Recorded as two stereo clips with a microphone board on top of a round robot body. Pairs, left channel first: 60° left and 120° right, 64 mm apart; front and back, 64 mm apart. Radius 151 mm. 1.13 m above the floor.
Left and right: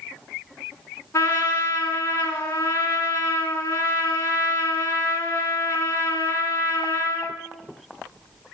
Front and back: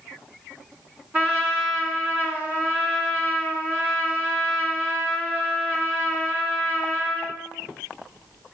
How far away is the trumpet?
About 3 m.